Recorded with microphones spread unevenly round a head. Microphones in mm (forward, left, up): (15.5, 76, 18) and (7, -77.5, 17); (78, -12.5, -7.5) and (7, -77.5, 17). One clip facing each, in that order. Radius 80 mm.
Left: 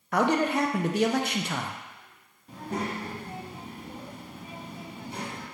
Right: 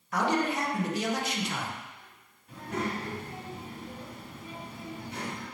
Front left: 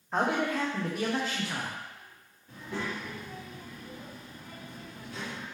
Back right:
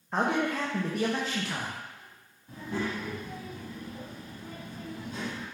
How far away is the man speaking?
About 0.6 m.